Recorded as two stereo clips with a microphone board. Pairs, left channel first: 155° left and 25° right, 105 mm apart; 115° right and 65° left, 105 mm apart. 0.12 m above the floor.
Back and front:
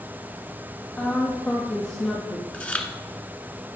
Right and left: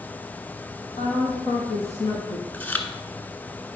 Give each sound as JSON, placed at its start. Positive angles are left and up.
{"t": 1.0, "sound": "a woman speaking", "azimuth_deg": -125, "distance_m": 4.5}
{"t": 2.5, "sound": "chewing", "azimuth_deg": -150, "distance_m": 1.0}